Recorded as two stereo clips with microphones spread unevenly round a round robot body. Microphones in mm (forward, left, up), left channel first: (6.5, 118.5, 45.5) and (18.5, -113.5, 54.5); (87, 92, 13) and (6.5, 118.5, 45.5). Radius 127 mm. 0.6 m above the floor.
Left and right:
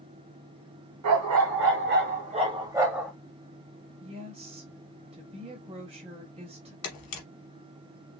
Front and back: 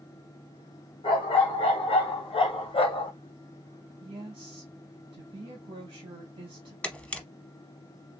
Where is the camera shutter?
65° left, 1.3 m.